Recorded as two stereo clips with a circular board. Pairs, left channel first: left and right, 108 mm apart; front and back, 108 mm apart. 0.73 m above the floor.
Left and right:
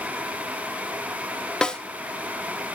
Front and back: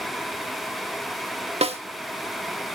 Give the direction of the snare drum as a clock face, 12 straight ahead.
6 o'clock.